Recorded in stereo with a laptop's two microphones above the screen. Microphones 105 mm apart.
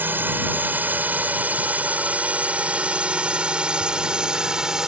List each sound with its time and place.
0.0 s a drone: 20° right (ahead or behind); by 4.9 s 5° right (ahead or behind)